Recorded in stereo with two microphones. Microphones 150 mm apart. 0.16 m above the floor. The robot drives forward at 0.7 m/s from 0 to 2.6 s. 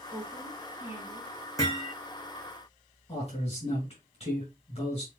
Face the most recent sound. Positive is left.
turn(degrees=45)  # may be behind; listen again after turning